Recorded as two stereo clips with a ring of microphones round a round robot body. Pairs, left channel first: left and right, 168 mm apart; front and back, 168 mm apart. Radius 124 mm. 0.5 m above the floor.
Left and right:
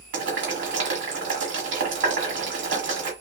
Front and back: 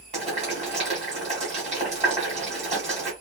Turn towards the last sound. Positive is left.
turn(degrees=-115)